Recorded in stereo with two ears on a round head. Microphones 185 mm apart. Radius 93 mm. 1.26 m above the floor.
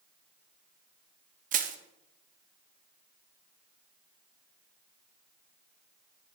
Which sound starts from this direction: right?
Crushing, at 1.5 s.